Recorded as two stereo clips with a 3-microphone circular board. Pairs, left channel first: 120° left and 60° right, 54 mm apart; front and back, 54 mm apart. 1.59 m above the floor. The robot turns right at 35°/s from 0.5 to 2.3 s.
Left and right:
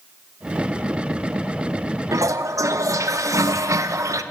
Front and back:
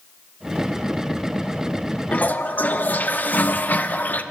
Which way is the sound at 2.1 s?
65° right.